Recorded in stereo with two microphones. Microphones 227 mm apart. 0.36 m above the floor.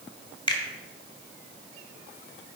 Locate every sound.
0.5 s a finger snap: 20° left (ahead or behind), 1.3 m